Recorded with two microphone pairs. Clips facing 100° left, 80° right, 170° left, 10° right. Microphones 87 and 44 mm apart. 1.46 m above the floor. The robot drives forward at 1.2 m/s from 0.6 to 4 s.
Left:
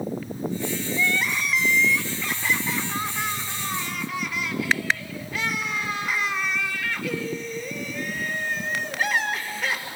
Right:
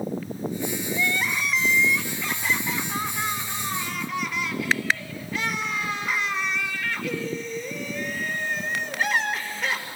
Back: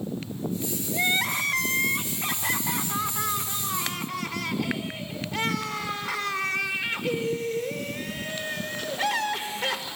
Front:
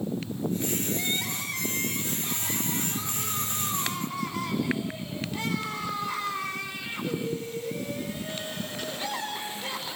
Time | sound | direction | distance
0.9 | crying | 165° right | 1.4 m